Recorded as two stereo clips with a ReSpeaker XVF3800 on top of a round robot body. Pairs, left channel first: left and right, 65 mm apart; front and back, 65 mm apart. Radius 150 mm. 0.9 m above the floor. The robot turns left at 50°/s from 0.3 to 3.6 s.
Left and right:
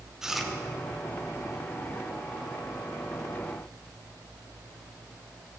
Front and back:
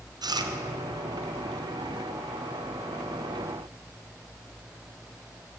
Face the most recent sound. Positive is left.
turn(degrees=20)